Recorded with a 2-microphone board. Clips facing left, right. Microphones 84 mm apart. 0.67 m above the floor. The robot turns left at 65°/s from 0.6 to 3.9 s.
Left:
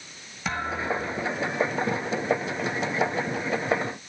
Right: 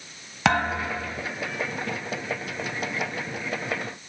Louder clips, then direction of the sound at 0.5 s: Right 5 dB; 95° right.